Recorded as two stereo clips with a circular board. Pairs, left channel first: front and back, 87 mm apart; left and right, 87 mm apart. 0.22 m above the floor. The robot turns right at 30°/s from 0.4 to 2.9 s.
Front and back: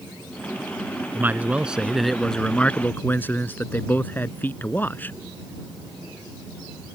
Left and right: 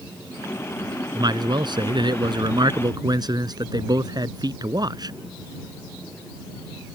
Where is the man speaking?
115° right; by 5.1 s 65° right.